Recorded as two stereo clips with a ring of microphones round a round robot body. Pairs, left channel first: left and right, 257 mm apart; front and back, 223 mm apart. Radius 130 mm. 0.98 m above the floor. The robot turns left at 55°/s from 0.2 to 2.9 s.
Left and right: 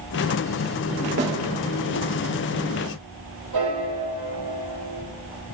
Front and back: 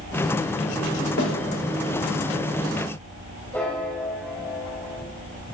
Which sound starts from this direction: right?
A piano, at 3.5 s.